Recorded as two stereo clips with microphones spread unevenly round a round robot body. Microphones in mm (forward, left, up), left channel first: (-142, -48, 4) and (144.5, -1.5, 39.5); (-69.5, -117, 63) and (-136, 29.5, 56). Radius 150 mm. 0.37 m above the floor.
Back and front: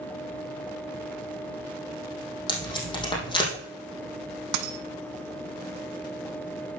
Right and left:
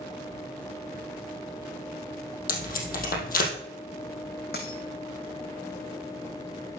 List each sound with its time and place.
2.5 s tape being pulled: 95° right, 3.5 m
4.5 s a dropped coin: 10° right, 1.0 m